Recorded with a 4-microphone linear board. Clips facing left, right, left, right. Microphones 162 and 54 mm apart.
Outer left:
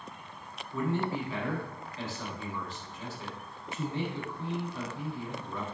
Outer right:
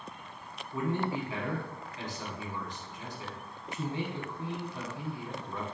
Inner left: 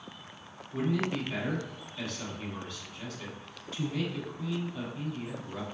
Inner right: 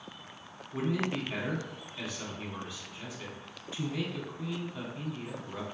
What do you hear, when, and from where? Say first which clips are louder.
0.7 s a man speaking: outer left 1 dB, inner left 1 dB; 15° right (ahead or behind), 1.2 m